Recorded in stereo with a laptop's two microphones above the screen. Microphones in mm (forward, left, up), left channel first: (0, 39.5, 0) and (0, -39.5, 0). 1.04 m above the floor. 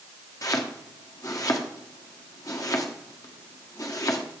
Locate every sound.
0.4 s chopping: 50° left (ahead or behind), 1.1 m